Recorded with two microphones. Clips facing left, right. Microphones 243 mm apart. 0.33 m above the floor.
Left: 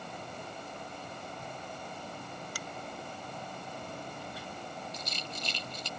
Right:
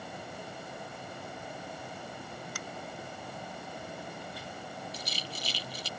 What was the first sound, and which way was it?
A finger snap, 40° left (ahead or behind).